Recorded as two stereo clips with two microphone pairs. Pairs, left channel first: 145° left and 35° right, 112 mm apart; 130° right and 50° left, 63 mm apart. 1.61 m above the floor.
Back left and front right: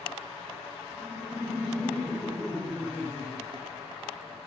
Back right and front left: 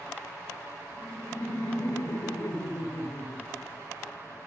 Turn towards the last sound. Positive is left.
turn(degrees=-135)